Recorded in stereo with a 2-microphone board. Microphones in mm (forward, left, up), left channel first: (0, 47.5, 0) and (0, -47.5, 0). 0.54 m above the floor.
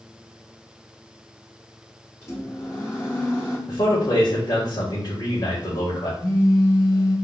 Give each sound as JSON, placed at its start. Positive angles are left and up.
{"t": 2.2, "sound": "a microwave", "side_deg": 35, "distance_m": 2.5}
{"t": 3.7, "sound": "a man speaking", "side_deg": 45, "distance_m": 2.0}
{"t": 6.2, "sound": "a phone buzzing", "side_deg": 40, "distance_m": 3.0}